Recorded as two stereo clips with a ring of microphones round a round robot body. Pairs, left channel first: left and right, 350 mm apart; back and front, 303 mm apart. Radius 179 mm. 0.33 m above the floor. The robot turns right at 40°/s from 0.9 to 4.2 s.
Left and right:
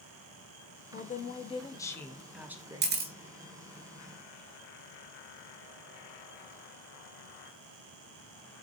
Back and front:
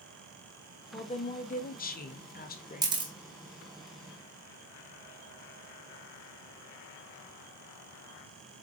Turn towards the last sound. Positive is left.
turn(degrees=-10)